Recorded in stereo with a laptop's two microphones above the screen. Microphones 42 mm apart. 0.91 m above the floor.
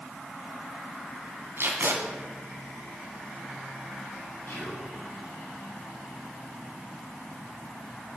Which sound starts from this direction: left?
Whispering, at 4.5 s.